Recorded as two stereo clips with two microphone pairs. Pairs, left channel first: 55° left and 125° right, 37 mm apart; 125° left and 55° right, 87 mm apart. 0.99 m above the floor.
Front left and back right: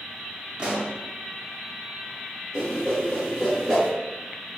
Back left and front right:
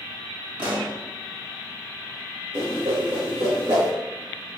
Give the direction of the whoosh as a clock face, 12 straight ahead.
1 o'clock.